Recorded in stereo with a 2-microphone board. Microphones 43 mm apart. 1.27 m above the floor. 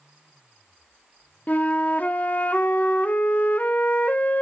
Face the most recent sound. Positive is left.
turn(degrees=40)  # may be behind; listen again after turning